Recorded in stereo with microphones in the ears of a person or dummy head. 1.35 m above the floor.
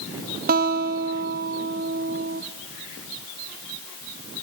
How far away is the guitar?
About 0.6 m.